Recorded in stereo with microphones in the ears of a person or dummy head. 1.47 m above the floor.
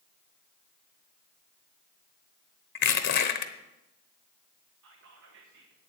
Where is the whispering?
75° right (ahead or behind), 1.5 m.